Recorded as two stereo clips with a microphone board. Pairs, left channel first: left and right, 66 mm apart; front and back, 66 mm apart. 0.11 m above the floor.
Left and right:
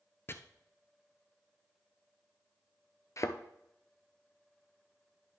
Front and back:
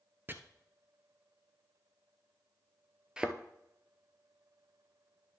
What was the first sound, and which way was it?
Chopping, 130° left.